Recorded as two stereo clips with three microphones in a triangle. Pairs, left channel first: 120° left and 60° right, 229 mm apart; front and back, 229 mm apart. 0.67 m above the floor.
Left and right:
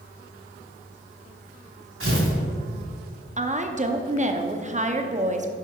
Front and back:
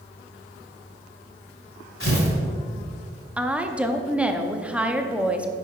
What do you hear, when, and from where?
2.0 s tearing paper: 30° right, 2.5 m
3.4 s a woman speaking: 95° right, 0.7 m